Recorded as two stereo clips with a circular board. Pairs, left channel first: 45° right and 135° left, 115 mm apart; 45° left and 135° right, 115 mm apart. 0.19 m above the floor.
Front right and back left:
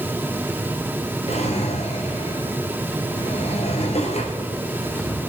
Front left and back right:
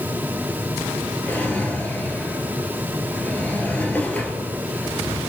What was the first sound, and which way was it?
A drawer, 30° right.